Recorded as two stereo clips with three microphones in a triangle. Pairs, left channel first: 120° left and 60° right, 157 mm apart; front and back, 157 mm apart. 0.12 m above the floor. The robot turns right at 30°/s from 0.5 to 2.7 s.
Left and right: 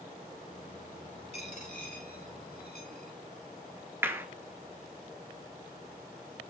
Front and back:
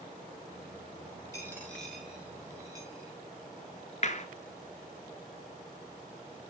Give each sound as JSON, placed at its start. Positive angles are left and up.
{"t": 1.3, "sound": "a dropped coin", "azimuth_deg": 70, "distance_m": 5.5}
{"t": 4.0, "sound": "a clap", "azimuth_deg": 10, "distance_m": 1.3}